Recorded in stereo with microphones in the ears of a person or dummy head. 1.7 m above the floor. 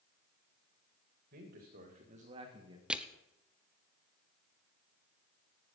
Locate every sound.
1.3 s a man speaking: 50° right (ahead or behind), 2.5 m; by 2.8 s 25° right (ahead or behind), 1.8 m
2.9 s crushing: 5° right (ahead or behind), 0.8 m